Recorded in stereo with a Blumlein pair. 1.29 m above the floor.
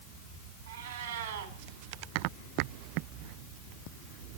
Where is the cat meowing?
65° right, 2 m.